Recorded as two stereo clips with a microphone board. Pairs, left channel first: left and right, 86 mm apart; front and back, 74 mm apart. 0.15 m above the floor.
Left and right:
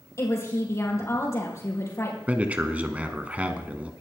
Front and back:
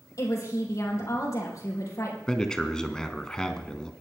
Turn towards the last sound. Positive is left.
turn(degrees=-60)